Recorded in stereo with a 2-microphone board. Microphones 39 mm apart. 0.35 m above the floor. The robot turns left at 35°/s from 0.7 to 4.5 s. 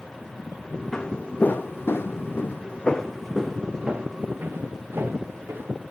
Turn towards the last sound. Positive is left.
turn(degrees=-65)  # may be behind; listen again after turning